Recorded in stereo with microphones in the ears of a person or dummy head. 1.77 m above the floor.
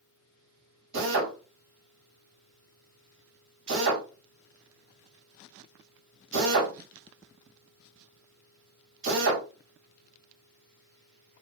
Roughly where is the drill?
Right.